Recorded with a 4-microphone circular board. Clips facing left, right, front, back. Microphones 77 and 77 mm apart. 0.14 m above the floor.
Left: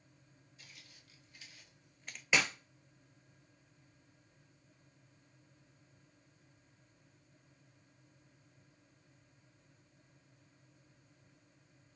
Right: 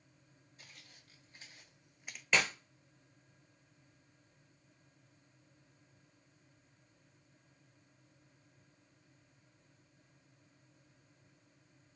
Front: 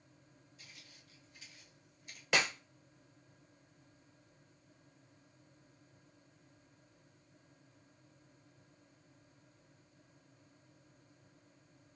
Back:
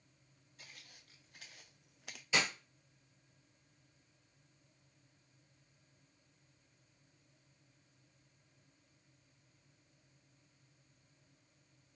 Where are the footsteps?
135° right, 1.6 m; by 2.2 s 175° left, 0.5 m.